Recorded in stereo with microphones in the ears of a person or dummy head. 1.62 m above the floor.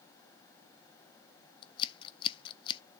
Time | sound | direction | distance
1.6 | scissors | 25° left (ahead or behind) | 0.5 m